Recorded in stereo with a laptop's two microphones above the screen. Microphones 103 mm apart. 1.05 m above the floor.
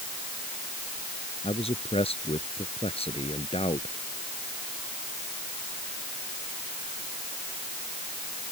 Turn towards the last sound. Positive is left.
turn(degrees=90)